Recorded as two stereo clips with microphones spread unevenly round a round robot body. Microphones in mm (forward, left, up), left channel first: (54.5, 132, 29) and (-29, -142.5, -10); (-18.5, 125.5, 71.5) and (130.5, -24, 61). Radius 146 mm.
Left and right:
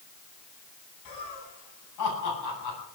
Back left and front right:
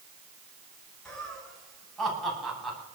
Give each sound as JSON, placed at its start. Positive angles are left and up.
{"t": 1.1, "sound": "laughter", "azimuth_deg": 50, "distance_m": 10.0}